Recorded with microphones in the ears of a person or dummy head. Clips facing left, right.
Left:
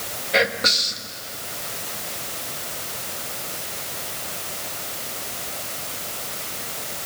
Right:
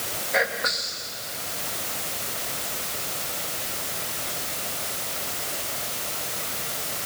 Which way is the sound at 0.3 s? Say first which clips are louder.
Left 5 dB; 45° left (ahead or behind).